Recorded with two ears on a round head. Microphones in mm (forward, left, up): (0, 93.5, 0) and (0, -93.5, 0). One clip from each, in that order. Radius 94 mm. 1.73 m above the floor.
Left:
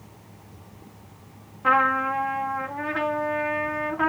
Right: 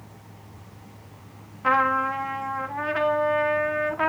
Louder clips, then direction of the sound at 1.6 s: Left 1 dB; 25° right (ahead or behind).